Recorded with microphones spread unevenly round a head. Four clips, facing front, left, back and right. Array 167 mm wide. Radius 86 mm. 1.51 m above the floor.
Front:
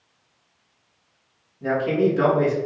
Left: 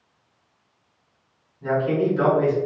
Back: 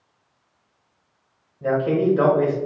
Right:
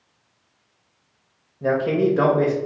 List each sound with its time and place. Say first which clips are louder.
1.6 s a man speaking: right 2 dB, back 1 dB; 105° right, 1.5 m